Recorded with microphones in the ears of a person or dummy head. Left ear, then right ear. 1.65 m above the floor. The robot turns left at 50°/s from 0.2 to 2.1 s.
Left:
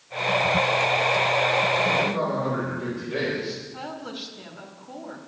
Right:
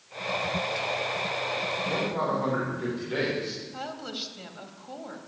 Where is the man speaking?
50° right (ahead or behind), 6.5 m; by 3.6 s 40° right (ahead or behind), 6.5 m.